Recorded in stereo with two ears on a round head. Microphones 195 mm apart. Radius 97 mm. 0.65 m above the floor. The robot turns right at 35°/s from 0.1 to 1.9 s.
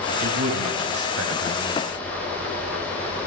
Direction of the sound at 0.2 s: 75° right (ahead or behind).